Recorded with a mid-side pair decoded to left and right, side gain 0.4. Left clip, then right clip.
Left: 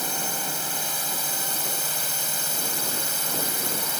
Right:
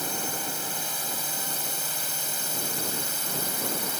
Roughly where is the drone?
Ahead.